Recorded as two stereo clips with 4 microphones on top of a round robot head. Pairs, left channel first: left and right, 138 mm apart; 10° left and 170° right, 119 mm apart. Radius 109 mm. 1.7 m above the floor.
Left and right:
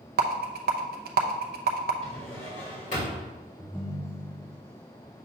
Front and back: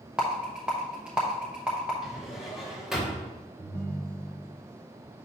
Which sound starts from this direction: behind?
A ringtone, at 3.6 s.